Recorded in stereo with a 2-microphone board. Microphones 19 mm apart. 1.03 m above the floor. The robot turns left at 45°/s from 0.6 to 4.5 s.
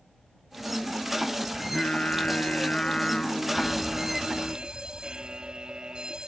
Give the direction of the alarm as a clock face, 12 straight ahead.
12 o'clock.